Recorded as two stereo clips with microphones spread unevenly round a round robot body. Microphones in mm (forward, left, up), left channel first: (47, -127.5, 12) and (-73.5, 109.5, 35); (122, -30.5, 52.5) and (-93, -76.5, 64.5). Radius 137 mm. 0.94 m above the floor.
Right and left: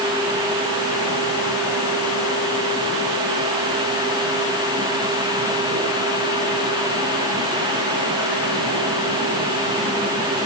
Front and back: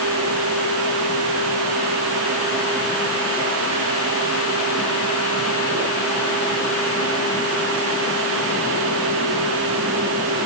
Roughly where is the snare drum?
I don't hear a snare drum.